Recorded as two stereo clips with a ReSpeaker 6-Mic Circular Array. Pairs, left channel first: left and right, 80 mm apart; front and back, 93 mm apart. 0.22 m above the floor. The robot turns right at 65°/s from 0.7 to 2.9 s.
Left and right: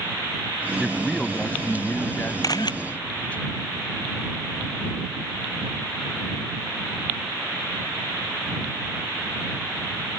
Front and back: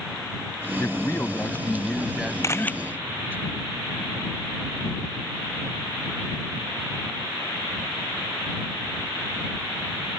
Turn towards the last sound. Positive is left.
turn(degrees=85)